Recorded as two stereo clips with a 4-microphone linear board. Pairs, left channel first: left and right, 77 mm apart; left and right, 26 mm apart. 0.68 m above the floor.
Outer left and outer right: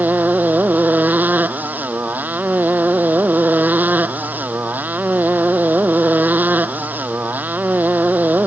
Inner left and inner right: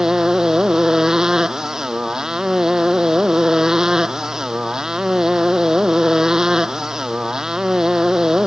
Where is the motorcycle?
25° right (ahead or behind).